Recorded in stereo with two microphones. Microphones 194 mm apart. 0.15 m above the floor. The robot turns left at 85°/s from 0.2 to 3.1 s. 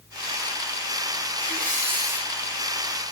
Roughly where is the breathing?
Behind right.